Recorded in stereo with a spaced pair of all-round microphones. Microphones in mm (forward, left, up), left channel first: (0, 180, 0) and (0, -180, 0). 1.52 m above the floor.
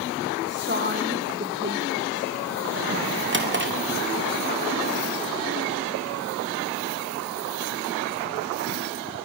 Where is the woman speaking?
30° right (ahead or behind), 2.0 m.